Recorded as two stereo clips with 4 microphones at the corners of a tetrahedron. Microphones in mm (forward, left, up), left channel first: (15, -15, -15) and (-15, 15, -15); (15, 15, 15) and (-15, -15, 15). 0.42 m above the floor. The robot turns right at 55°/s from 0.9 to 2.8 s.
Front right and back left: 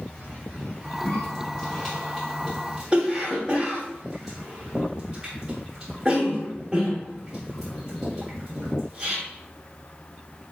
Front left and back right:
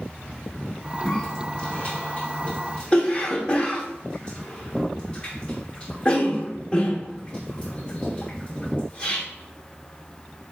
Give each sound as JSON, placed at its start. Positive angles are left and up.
{"t": 1.1, "sound": "a cough", "azimuth_deg": -10, "distance_m": 1.0}